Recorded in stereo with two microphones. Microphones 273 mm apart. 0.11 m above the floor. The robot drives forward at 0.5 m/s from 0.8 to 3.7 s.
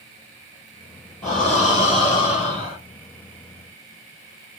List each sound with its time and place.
1.2 s breathing: 15° right (ahead or behind), 2.5 m; by 2.8 s 20° right (ahead or behind), 1.9 m